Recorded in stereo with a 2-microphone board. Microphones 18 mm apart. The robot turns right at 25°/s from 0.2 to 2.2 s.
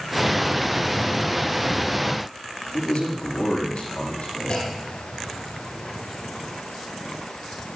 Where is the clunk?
55° left (ahead or behind), 5 m.